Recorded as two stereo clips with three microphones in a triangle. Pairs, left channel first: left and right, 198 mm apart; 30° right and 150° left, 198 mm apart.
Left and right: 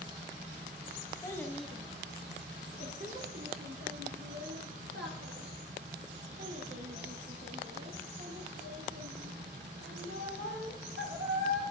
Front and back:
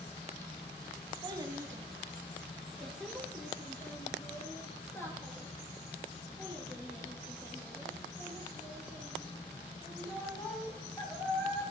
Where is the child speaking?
130° left, 0.8 m; by 11.6 s 105° right, 6 m.